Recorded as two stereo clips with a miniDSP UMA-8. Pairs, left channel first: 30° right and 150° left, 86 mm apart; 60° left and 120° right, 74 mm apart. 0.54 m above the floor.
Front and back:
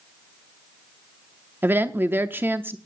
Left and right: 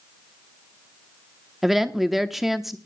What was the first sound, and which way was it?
A woman speaking, 155° left.